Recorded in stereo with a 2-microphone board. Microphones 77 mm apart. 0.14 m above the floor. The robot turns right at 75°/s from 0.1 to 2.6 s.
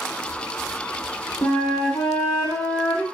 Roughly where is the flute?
Left.